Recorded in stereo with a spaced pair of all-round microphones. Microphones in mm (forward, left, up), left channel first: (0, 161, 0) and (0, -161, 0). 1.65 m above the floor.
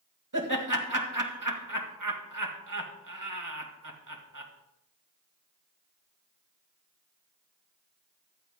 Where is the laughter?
70° right (ahead or behind), 2 m.